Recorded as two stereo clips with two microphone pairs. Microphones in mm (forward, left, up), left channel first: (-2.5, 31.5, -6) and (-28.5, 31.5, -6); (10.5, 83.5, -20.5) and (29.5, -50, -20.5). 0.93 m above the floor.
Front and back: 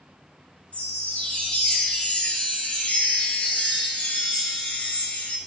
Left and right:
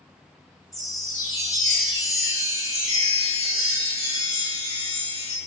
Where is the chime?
35° left, 0.8 m.